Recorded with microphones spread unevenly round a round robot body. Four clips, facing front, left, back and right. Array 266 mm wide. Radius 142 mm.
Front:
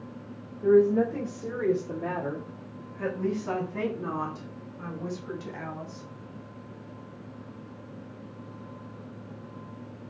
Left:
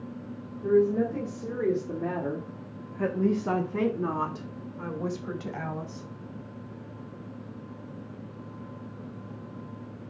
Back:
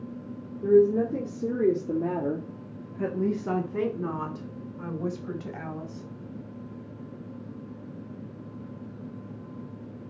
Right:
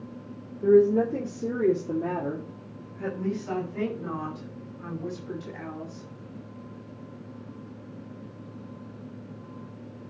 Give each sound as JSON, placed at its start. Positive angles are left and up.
{"t": 0.6, "sound": "a woman speaking", "azimuth_deg": -125, "distance_m": 3.0}